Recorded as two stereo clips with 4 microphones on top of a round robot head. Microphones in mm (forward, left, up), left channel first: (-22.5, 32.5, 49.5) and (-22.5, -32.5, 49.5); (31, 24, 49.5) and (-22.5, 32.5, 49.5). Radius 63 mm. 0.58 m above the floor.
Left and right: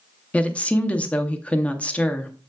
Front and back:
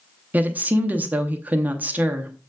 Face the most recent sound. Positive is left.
turn(degrees=145)